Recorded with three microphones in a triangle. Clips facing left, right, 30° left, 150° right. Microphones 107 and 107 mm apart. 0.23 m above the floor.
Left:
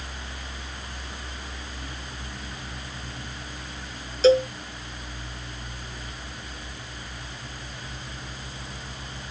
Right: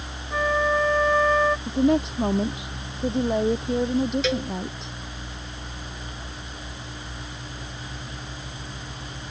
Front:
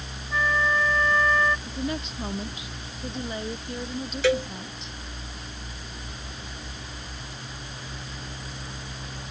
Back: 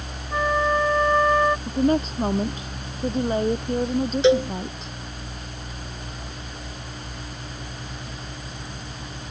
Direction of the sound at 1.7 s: 100° right.